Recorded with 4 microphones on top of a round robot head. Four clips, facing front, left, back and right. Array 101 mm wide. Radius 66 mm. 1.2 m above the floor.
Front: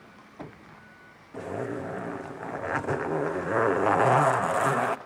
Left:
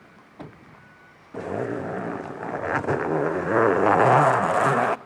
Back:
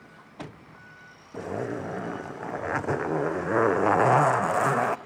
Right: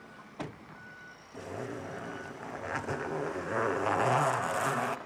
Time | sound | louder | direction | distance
1.3 | a zipper | left 11 dB, back 1 dB | 100° left | 0.7 m